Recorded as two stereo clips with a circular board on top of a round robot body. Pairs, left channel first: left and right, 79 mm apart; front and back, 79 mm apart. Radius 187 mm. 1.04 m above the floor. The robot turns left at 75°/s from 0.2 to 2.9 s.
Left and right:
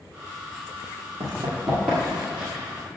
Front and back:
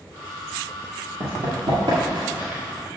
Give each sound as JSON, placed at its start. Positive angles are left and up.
{"t": 1.2, "sound": "running footsteps", "azimuth_deg": -125, "distance_m": 1.7}